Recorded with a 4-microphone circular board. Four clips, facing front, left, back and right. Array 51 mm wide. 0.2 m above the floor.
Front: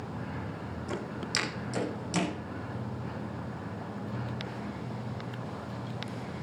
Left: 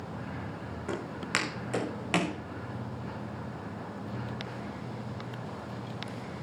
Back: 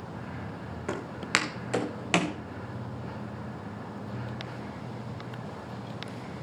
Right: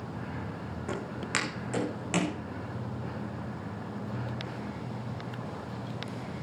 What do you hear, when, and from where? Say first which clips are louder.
0.9 s footsteps: left 1 dB, back 6 dB; 175° left, 5 m; by 2.4 s 160° left, 3.5 m